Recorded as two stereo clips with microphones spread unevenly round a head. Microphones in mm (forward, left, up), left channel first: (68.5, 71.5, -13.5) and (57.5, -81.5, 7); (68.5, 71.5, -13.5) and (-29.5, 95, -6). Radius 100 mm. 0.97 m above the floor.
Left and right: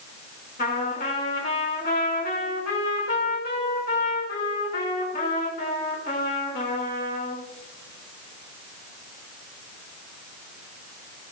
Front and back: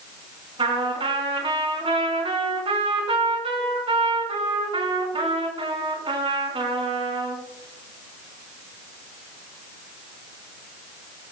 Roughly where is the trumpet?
Behind left.